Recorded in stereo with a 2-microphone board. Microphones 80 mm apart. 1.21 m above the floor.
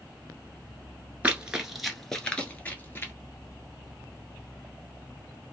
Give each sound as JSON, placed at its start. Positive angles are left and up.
{"t": 1.2, "sound": "running footsteps", "side_deg": -15, "distance_m": 1.2}